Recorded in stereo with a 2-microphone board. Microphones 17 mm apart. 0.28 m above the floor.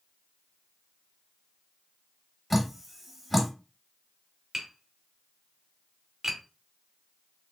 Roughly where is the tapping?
Right.